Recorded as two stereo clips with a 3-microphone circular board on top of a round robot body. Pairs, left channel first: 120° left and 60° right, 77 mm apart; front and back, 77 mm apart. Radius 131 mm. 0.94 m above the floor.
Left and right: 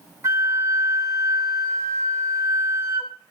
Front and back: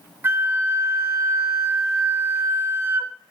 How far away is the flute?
About 0.7 m.